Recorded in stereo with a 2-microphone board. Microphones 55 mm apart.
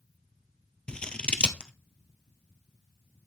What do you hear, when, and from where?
0.9 s scissors: 20° left (ahead or behind), 1.2 m